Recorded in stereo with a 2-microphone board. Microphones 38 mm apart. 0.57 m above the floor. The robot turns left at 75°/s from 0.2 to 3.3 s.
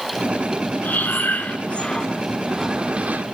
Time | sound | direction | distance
0.8 | breathing | 115° left | 1.7 m